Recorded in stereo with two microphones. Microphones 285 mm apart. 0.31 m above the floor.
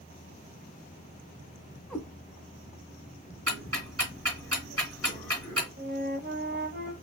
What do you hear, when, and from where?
1.9 s a cat meowing: 5° left (ahead or behind), 0.6 m
3.5 s ticking: 55° right (ahead or behind), 1.9 m
5.8 s a flute: 40° right (ahead or behind), 0.6 m